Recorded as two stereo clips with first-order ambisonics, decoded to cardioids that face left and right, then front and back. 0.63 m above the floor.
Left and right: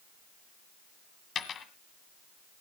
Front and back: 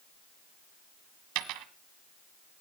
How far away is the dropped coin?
About 1.4 m.